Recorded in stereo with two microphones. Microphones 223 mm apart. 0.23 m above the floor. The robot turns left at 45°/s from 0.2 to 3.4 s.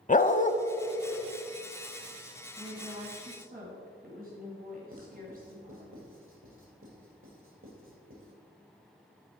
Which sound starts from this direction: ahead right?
A woman speaking, at 2.6 s.